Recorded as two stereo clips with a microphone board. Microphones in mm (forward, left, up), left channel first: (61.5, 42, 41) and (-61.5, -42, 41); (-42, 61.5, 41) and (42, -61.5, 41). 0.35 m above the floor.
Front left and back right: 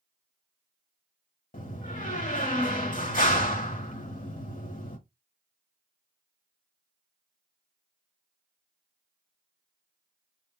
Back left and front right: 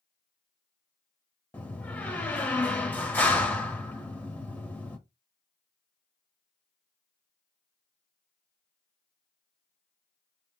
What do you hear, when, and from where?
1.5 s a door slam: 50° left, 1.0 m